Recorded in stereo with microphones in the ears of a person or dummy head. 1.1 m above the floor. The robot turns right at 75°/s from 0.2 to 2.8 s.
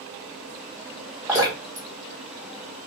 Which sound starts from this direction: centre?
Dripping, at 1.3 s.